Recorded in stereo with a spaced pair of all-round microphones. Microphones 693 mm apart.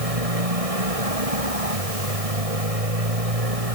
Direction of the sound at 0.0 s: 50° right (ahead or behind).